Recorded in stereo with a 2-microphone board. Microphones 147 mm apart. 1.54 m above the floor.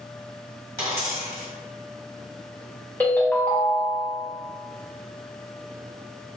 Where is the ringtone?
10° left (ahead or behind), 0.7 m.